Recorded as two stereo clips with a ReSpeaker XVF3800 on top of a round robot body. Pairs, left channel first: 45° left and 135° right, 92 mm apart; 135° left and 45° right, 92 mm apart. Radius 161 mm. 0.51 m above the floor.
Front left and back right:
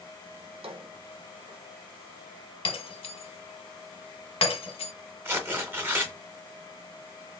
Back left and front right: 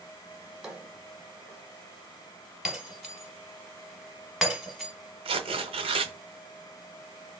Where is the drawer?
125° right, 1.5 m.